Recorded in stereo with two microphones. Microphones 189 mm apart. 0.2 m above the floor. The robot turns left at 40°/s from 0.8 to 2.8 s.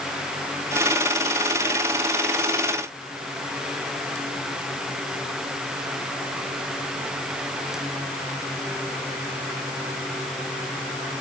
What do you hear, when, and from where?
Only background noise.